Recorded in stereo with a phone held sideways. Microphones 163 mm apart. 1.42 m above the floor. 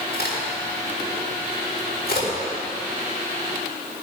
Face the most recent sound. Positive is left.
turn(degrees=80)